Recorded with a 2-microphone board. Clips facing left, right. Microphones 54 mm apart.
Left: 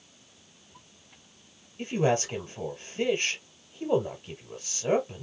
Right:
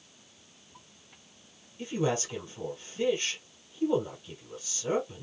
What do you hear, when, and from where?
1.8 s a man speaking: 40° left (ahead or behind), 1.6 m